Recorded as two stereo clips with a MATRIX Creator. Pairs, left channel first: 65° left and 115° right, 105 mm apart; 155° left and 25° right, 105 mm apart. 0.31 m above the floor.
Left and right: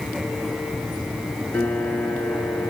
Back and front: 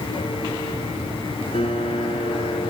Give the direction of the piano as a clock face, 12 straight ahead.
7 o'clock.